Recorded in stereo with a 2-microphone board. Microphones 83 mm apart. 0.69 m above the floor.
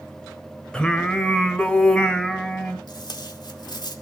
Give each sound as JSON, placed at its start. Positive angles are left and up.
{"t": 0.7, "sound": "singing", "side_deg": 10, "distance_m": 1.3}
{"t": 2.9, "sound": "tape being pulled", "side_deg": 60, "distance_m": 2.5}